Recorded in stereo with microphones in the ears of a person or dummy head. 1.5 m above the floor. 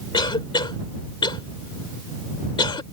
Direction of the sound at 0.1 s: 20° left (ahead or behind).